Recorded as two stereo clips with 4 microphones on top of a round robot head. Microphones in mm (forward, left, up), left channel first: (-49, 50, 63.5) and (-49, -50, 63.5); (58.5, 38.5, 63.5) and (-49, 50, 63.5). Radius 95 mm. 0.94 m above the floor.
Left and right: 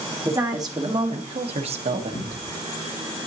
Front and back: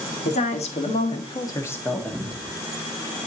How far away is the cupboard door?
About 5.5 m.